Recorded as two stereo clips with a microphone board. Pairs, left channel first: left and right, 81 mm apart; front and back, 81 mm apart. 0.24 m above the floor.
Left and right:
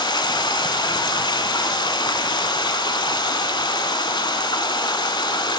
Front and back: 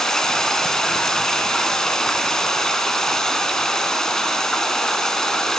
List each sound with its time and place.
0.0 s running water: 85° left, 0.7 m